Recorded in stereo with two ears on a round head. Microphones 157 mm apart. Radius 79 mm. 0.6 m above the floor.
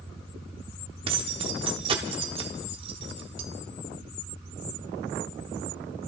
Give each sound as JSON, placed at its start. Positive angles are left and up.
{"t": 1.1, "sound": "keys jangling", "side_deg": -30, "distance_m": 1.0}